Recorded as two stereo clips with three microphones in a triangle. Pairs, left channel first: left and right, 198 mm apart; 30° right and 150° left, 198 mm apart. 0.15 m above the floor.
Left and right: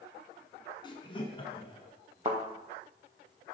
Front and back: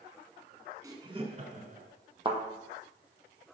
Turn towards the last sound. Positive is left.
turn(degrees=-145)